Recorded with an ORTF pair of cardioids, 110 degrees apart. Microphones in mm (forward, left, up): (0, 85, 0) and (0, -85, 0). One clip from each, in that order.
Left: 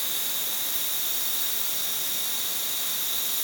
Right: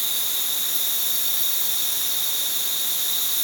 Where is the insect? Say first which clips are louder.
Right 4 dB; 25° right, 2.5 m.